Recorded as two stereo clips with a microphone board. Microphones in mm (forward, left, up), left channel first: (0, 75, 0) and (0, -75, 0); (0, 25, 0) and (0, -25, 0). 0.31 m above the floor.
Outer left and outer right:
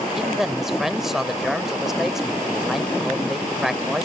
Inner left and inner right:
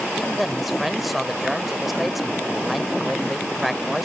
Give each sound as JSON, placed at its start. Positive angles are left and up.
{"t": 0.1, "sound": "a man speaking", "side_deg": -5}